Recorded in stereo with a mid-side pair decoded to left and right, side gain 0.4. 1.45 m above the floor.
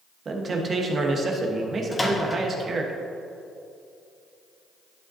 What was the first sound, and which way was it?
A man speaking, 50° right.